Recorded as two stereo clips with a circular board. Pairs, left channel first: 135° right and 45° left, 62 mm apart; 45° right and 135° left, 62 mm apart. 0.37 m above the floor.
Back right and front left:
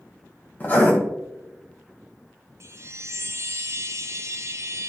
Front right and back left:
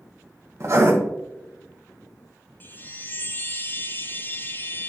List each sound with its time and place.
0.6 s writing: 170° left, 1.7 m
2.6 s a chime: 10° left, 0.7 m